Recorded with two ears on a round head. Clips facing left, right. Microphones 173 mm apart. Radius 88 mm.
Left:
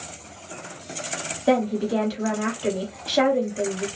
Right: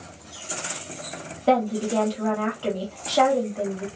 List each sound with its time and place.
1.5 s a woman speaking: 15° left (ahead or behind), 1.2 m